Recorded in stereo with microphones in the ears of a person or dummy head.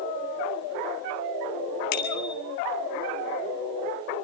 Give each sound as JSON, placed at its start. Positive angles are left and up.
{"t": 1.9, "sound": "a bicycle bell", "side_deg": 50, "distance_m": 2.0}